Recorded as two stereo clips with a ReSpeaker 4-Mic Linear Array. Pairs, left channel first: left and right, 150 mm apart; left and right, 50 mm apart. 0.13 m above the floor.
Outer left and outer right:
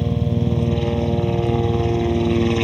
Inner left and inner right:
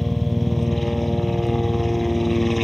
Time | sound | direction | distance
0.0 | a helicopter | centre (ahead or behind) | ?